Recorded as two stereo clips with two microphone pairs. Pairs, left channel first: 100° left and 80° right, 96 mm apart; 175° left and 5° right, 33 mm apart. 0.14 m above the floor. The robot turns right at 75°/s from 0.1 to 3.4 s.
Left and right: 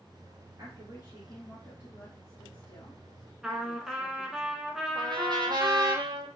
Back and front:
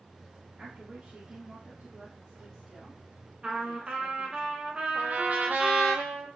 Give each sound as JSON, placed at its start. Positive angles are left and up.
{"t": 0.6, "sound": "a woman speaking", "azimuth_deg": -65, "distance_m": 1.7}
{"t": 3.4, "sound": "a trumpet", "azimuth_deg": 0, "distance_m": 0.8}
{"t": 5.0, "sound": "a trumpet", "azimuth_deg": -40, "distance_m": 0.8}